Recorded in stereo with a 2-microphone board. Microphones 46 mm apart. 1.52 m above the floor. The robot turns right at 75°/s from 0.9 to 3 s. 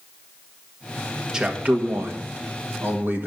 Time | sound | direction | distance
1.3 | a man speaking | 165° right | 1.5 m